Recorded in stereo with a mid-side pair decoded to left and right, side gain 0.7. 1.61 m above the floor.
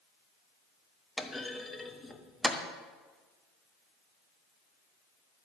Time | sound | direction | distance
1.2 | a clunk | 15° left | 1.3 m